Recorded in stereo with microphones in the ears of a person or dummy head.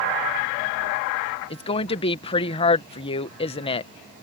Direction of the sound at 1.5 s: 25° left (ahead or behind).